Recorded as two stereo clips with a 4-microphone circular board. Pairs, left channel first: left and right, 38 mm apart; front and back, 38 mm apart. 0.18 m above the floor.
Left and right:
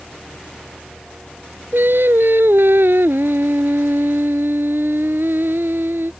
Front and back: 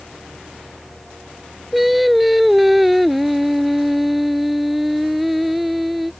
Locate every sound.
1.7 s singing: 95° right